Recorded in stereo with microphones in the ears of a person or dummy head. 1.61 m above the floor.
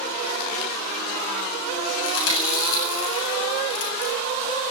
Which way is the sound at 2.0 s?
80° left.